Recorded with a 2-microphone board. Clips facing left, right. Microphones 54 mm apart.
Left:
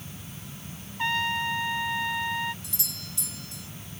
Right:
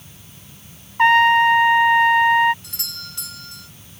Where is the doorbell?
60° right (ahead or behind).